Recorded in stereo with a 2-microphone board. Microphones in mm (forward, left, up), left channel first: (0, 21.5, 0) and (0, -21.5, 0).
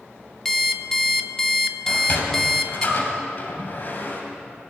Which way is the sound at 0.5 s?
10° left (ahead or behind).